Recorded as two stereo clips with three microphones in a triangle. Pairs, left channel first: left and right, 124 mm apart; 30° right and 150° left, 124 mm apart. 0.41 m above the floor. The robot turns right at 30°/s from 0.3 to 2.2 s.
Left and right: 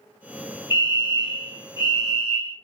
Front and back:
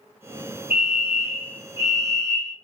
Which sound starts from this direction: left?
A fire alarm, at 0.7 s.